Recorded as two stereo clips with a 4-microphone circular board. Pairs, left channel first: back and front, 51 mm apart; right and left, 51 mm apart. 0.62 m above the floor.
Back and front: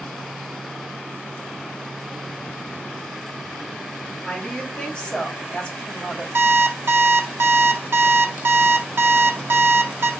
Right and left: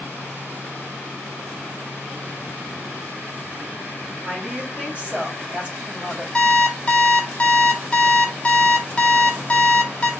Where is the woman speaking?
130° left, 1.3 m.